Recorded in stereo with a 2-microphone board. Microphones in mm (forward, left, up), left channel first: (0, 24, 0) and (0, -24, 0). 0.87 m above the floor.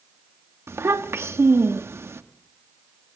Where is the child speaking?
70° right (ahead or behind), 0.9 m.